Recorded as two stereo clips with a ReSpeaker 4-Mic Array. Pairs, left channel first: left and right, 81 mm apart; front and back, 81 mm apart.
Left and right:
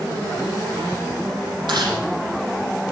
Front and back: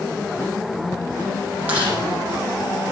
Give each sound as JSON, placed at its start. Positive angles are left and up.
{"t": 1.7, "sound": "chewing", "azimuth_deg": -110, "distance_m": 8.0}